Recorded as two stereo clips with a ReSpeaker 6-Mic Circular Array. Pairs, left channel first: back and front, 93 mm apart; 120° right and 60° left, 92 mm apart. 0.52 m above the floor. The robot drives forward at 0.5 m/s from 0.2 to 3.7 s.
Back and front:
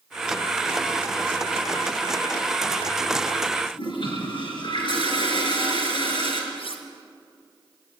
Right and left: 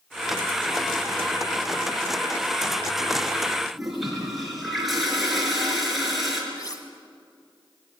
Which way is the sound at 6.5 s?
165° right.